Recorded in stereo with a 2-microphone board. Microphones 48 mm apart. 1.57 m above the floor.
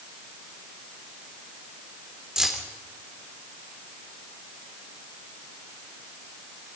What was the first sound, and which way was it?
Keys jangling, 15° right (ahead or behind).